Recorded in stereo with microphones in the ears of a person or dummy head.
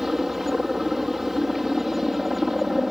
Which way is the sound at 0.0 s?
5° right (ahead or behind).